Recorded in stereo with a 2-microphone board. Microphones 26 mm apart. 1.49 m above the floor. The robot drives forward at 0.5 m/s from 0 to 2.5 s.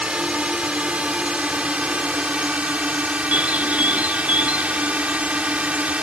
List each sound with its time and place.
0.0 s a drone: 50° right (ahead or behind); by 6.0 s 60° right (ahead or behind)
3.3 s a bird: 65° right (ahead or behind)